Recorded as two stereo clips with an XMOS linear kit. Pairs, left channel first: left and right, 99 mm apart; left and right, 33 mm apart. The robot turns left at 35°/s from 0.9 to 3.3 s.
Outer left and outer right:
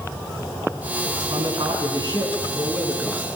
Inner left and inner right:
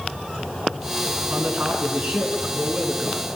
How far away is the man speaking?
About 5.5 m.